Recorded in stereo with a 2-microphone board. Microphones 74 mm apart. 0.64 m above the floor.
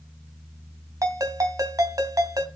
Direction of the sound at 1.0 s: 55° right (ahead or behind).